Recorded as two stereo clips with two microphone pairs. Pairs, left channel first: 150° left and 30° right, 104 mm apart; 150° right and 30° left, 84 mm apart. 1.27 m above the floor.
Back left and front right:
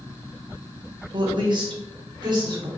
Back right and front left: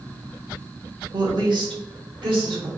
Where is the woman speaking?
5° left, 1.0 m; by 2.7 s 15° left, 1.9 m.